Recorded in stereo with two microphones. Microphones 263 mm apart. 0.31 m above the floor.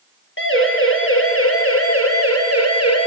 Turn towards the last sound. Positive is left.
turn(degrees=70)  # may be behind; listen again after turning